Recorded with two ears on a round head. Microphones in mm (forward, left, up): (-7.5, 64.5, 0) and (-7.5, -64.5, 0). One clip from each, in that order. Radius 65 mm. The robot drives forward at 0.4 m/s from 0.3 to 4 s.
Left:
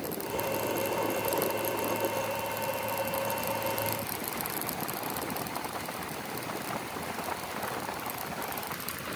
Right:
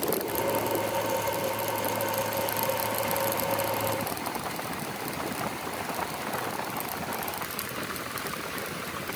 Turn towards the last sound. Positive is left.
No sound to turn to.